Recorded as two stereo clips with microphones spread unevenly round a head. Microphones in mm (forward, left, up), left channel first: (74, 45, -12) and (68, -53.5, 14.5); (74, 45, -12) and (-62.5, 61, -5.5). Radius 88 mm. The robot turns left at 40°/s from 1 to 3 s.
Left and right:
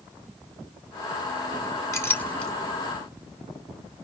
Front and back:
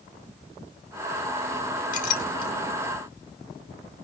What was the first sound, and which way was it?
A clink, 20° left.